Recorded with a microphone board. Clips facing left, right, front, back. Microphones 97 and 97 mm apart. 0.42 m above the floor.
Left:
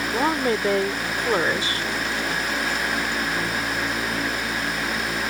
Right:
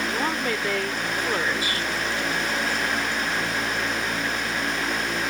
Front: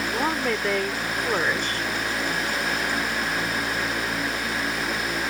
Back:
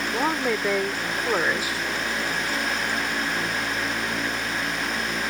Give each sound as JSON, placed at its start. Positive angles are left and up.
{"t": 0.1, "sound": "a woman speaking", "azimuth_deg": 105}